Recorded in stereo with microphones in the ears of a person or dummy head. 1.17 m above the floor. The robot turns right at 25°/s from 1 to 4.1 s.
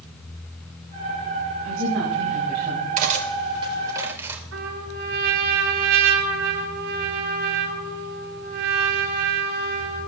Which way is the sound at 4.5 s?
80° right.